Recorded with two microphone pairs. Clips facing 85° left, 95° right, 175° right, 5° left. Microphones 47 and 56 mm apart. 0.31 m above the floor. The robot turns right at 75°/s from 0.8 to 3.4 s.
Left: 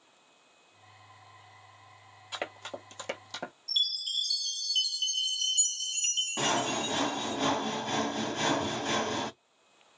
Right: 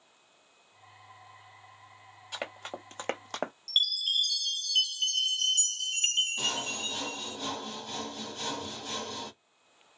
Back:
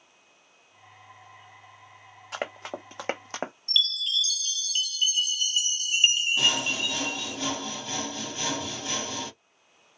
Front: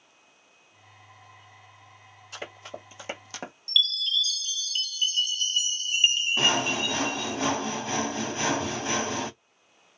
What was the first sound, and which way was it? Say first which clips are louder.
Running footsteps: left 1 dB, back 6 dB; 170° left.